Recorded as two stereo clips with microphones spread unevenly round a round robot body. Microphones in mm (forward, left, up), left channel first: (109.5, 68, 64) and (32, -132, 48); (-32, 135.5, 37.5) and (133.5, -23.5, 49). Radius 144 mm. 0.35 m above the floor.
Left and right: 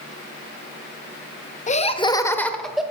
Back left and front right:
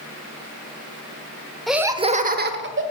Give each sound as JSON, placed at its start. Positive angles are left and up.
{"t": 1.7, "sound": "laughter", "azimuth_deg": 55, "distance_m": 0.9}